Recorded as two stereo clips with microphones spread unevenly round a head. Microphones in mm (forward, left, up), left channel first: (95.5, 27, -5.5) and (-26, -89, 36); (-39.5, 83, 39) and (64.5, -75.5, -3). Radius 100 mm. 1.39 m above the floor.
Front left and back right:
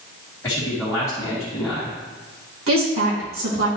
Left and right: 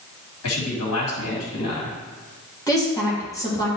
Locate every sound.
0.4 s a man speaking: 120° left, 2.5 m
2.7 s a woman speaking: 160° right, 3 m